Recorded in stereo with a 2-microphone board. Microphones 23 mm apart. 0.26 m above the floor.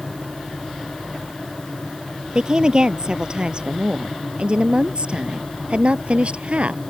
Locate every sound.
2.4 s a woman speaking: 35° right (ahead or behind); by 6.8 s 55° right (ahead or behind)